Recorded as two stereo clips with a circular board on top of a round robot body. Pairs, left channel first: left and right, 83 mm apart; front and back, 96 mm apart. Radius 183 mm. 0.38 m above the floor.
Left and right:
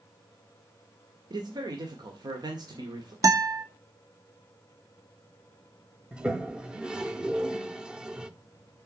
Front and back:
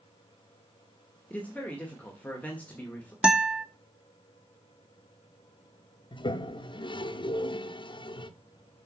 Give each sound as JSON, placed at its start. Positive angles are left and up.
{"t": 1.3, "sound": "a man speaking", "azimuth_deg": -70, "distance_m": 2.0}
{"t": 3.2, "sound": "a guitar", "azimuth_deg": -105, "distance_m": 1.7}
{"t": 6.1, "sound": "a toilet flushing", "azimuth_deg": -10, "distance_m": 1.0}